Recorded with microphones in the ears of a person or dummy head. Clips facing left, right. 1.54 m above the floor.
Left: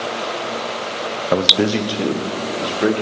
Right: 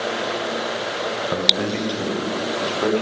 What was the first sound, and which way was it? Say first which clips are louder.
A man speaking: left 10 dB; 65° left (ahead or behind).